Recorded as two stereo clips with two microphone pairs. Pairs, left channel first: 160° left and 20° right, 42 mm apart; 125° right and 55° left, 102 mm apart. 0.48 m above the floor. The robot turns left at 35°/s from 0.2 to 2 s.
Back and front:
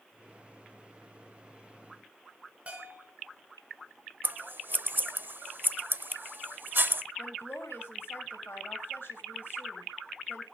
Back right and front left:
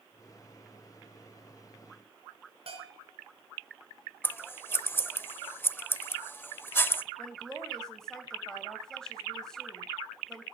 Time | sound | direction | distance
2.7 | a bell | 35° left | 4.5 m
4.2 | scissors | 55° right | 0.7 m
7.2 | a woman speaking | 150° left | 3 m